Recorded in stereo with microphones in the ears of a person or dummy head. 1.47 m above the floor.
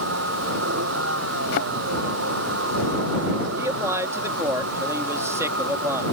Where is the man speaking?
15° right (ahead or behind).